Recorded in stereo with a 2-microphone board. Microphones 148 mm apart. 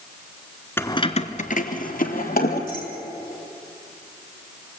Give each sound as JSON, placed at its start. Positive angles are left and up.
{"t": 0.8, "sound": "keys jangling", "side_deg": 15, "distance_m": 0.9}